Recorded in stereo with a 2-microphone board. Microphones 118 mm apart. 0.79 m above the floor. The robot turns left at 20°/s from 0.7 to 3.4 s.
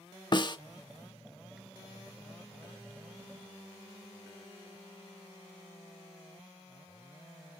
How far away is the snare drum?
About 0.6 m.